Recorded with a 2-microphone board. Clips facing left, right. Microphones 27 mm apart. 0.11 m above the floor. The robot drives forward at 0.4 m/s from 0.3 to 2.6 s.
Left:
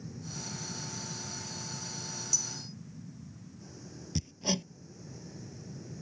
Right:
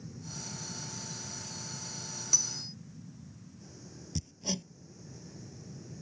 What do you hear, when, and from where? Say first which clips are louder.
0.0 s an aircraft: left 2 dB; 5° left (ahead or behind)
2.3 s cutlery clinking: right 5 dB; 45° right (ahead or behind); by 2.8 s 40° right (ahead or behind)
4.2 s hammering: left 4 dB; 25° left (ahead or behind)